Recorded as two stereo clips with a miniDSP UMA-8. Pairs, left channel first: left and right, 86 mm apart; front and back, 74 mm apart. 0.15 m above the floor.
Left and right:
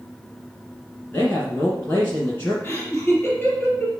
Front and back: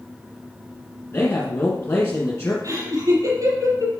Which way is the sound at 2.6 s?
155° left.